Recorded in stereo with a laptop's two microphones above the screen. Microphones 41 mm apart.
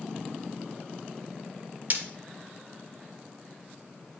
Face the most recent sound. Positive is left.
turn(degrees=-45)  # may be behind; listen again after turning